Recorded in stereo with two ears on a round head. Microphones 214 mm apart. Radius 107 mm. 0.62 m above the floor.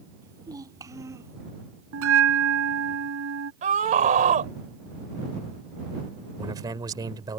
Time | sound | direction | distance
0.2 | a child speaking | 15° right (ahead or behind) | ?
1.9 | a bell | 65° right (ahead or behind) | ?
3.6 | a scream | 35° right (ahead or behind) | ?
6.4 | a man speaking | 15° right (ahead or behind) | ?